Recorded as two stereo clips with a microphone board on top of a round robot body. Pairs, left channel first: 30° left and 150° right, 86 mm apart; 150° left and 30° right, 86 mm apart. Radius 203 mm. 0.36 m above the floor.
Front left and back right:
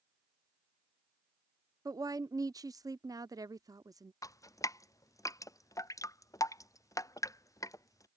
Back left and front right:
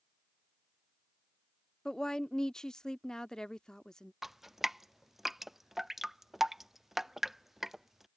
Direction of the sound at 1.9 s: 130° right.